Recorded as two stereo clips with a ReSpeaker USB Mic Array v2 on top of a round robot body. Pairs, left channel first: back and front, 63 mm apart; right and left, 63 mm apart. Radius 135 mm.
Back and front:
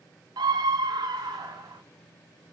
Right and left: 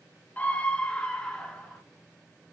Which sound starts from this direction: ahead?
A scream, at 0.4 s.